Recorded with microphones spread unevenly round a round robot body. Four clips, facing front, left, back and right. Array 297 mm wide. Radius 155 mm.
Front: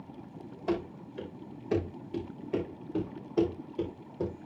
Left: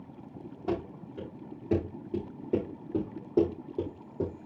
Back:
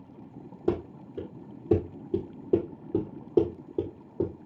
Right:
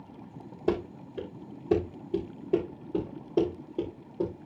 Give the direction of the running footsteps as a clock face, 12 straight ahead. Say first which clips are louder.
Right 4 dB, back 3 dB; 5 o'clock.